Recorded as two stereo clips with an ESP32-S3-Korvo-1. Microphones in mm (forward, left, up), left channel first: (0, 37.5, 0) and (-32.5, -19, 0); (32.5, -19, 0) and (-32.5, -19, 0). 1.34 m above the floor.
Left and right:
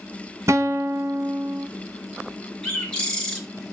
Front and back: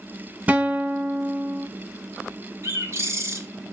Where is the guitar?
120° right, 0.8 m.